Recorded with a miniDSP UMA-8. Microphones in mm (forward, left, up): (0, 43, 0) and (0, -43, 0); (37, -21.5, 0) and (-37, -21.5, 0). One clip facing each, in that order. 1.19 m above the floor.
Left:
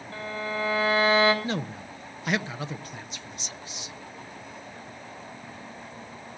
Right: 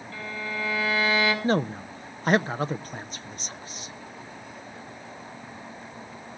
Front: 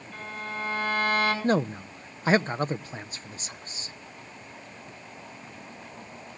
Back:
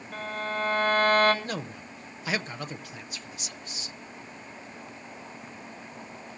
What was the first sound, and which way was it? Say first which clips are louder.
A violin: left 2 dB, back 4 dB; 140° left.